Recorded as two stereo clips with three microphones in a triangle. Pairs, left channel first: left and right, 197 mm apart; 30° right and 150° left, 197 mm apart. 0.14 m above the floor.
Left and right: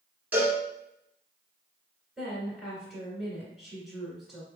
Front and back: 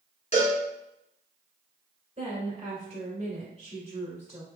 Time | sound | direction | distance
0.3 | a cowbell | 15° right | 1.8 m
2.2 | a woman speaking | straight behind | 1.9 m